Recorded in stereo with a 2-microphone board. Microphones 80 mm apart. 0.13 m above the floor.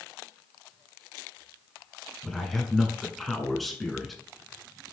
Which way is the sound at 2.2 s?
Centre (ahead or behind).